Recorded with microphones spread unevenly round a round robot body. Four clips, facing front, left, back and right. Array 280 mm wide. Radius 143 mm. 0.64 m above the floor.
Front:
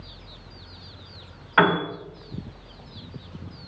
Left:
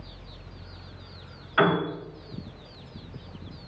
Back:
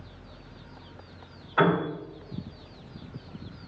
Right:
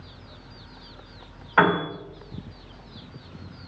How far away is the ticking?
I don't hear ticking.